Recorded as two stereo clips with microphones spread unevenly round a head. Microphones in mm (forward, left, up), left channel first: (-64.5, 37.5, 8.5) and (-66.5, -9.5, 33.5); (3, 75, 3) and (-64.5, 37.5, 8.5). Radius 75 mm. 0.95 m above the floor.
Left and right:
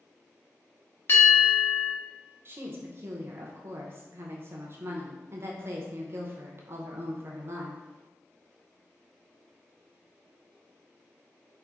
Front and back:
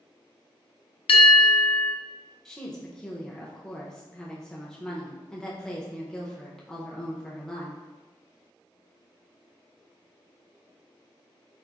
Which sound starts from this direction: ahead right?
A woman speaking, at 2.5 s.